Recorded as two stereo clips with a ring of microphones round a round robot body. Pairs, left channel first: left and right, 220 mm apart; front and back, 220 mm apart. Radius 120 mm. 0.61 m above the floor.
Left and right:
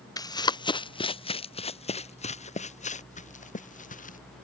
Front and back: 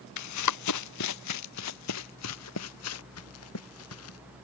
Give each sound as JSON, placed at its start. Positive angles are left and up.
{"t": 0.2, "sound": "running footsteps", "azimuth_deg": 15}